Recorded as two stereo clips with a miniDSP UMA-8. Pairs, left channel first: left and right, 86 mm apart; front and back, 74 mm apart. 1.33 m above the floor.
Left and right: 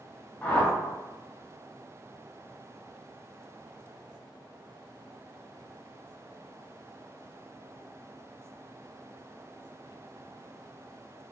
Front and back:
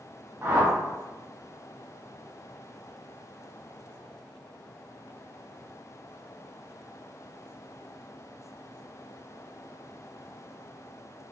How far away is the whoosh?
About 0.6 m.